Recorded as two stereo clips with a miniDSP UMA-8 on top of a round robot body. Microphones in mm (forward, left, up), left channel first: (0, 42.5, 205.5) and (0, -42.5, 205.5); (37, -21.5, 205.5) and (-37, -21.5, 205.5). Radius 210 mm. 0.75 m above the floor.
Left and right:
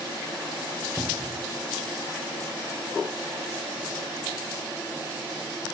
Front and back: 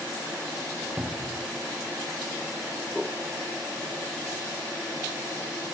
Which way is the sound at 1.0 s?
140° left.